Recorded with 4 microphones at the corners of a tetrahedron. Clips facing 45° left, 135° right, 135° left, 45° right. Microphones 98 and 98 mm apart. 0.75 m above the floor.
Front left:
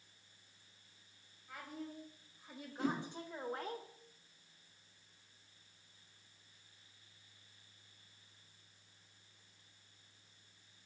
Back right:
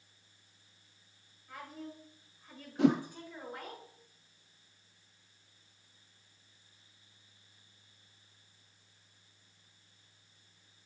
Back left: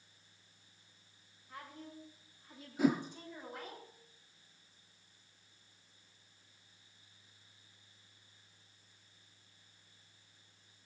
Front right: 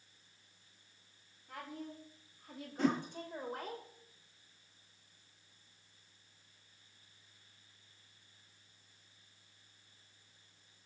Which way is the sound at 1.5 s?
45° right.